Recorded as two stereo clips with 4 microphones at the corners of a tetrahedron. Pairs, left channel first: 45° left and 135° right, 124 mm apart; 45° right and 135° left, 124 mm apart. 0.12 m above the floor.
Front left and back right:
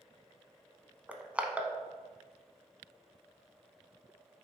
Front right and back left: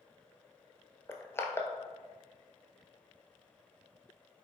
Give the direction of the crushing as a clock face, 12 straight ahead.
2 o'clock.